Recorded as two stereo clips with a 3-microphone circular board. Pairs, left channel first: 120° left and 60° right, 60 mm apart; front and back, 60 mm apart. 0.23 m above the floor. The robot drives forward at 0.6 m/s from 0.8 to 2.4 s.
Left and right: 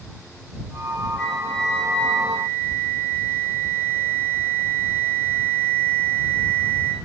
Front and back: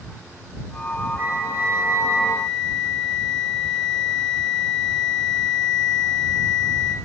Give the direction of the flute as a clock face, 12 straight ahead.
6 o'clock.